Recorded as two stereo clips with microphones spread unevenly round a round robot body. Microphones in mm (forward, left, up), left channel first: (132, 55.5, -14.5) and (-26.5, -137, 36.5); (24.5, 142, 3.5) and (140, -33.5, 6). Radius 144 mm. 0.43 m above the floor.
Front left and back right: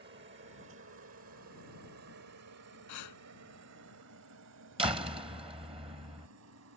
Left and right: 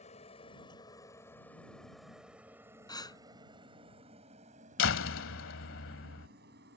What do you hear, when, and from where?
0.0 s a helicopter: straight behind; by 6.8 s 105° right
2.9 s breathing: 50° left
4.8 s a door slam: 155° left